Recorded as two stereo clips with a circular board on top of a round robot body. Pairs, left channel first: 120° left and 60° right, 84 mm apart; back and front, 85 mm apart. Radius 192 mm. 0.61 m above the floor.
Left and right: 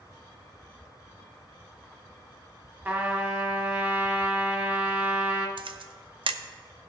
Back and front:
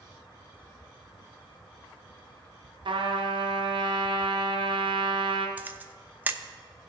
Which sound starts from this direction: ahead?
A trumpet, at 2.9 s.